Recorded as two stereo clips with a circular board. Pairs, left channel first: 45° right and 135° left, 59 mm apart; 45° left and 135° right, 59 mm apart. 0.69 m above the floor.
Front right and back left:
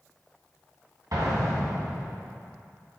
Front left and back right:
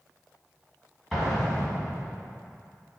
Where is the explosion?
135° left, 1.9 m.